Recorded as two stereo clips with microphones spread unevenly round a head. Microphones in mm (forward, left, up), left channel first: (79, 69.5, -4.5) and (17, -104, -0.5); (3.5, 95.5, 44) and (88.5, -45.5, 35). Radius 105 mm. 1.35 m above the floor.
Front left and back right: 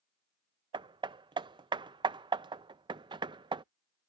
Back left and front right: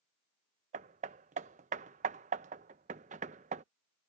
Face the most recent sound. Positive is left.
turn(degrees=-65)